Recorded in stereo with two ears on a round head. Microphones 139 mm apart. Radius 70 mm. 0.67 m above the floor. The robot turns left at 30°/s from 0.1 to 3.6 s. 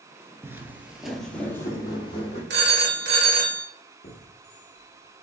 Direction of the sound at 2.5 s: 90° right.